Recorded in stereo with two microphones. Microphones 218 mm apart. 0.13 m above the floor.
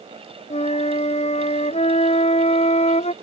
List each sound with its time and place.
0.5 s a flute: 30° left (ahead or behind)